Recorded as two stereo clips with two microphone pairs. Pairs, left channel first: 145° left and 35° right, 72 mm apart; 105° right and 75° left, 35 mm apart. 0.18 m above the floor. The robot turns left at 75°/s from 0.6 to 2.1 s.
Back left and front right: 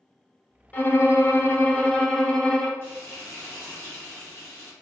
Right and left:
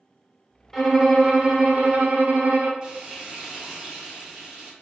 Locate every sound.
0.7 s a violin: straight behind, 0.6 m; by 2.7 s 75° left, 0.6 m
2.8 s frying: 130° left, 1.1 m